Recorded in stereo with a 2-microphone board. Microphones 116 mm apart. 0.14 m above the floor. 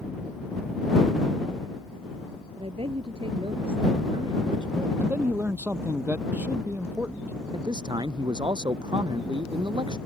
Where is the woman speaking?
55° right (ahead or behind); by 4.9 s 40° right (ahead or behind).